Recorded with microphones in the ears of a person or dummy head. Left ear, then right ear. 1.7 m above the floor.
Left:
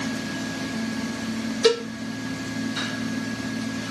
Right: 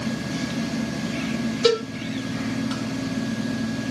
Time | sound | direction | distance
1.6 | a cowbell | 15° left (ahead or behind) | 1.4 m